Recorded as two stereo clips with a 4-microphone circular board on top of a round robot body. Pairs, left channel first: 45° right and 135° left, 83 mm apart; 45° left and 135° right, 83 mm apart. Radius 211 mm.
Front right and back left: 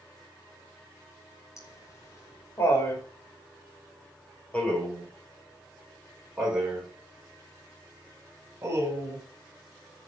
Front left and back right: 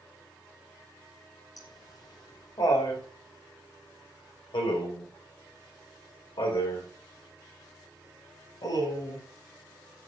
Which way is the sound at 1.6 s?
5° left.